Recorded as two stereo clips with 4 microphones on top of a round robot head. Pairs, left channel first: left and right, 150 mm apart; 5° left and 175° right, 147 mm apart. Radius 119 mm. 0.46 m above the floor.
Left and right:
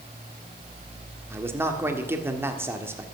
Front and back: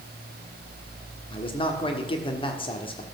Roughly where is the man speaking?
Ahead right.